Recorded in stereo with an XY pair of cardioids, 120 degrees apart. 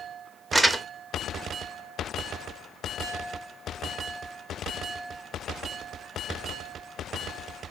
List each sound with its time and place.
0.5 s crumpling: 10° right, 0.6 m